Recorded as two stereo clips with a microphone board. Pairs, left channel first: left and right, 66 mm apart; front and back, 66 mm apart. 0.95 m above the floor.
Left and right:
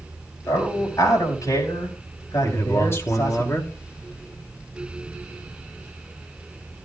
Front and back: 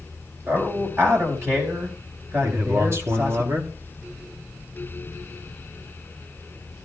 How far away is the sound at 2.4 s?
About 2.5 m.